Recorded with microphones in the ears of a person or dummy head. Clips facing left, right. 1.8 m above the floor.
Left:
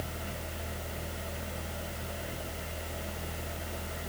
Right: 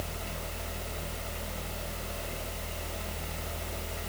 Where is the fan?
10° left (ahead or behind), 3.5 m.